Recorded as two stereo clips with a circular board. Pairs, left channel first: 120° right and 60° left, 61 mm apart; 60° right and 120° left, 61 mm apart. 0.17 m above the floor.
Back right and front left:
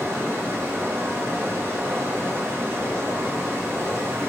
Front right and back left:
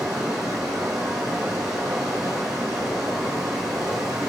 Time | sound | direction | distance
0.0 | running water | 110° left | 1.0 m